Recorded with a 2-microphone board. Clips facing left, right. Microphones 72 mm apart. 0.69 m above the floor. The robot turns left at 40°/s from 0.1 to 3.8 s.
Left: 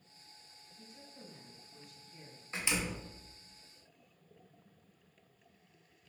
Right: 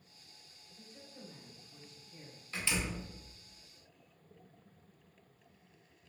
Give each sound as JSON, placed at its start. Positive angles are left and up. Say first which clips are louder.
{"t": 0.8, "sound": "a woman speaking", "louder": "right 1 dB", "azimuth_deg": -45, "distance_m": 1.6}
{"t": 2.5, "sound": "a door slam", "louder": "even", "side_deg": 20, "distance_m": 0.6}